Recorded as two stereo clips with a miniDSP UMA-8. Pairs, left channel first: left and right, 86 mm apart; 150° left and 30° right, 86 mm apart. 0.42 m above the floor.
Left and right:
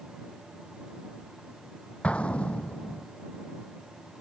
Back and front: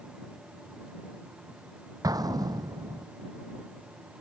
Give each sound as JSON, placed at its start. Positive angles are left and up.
{"t": 2.0, "sound": "an explosion", "azimuth_deg": 15}